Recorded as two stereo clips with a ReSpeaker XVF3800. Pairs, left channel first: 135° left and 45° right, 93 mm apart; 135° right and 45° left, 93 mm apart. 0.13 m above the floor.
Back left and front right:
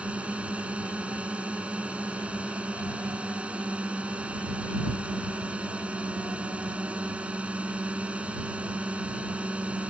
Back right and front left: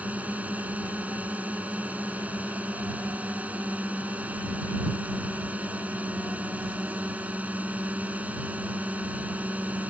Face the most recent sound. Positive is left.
turn(degrees=5)